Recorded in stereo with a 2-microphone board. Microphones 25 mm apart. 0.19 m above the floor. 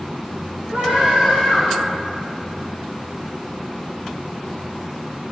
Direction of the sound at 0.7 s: 65° right (ahead or behind).